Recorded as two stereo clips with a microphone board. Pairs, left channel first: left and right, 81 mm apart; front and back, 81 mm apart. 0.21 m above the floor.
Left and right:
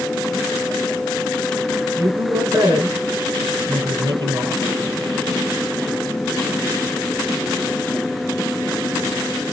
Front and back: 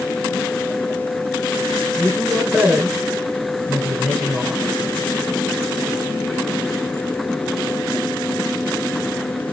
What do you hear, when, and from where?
2.0 s a woman speaking: 75° right, 2.0 m